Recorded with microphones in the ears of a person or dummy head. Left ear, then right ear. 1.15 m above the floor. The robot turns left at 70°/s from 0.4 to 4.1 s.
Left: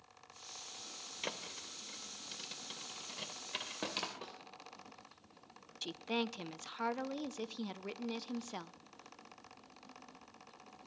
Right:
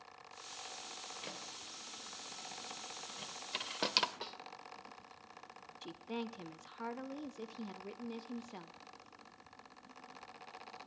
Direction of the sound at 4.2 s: 50° right (ahead or behind).